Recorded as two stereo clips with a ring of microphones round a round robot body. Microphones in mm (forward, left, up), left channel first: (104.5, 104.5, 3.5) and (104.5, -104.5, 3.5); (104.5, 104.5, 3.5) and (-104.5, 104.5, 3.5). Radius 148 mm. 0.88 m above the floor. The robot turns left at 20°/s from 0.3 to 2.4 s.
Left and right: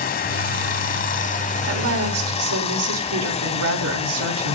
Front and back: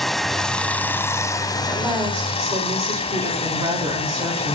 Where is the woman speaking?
90° right, 3.5 m; by 4.5 s 105° right, 3.5 m.